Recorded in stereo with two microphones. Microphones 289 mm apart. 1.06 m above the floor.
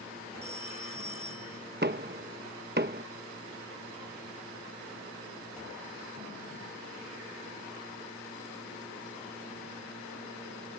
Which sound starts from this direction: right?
Knocking, at 1.8 s.